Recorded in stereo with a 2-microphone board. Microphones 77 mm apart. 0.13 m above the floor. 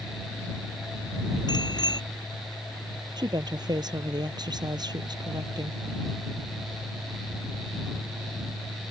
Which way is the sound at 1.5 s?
65° left (ahead or behind).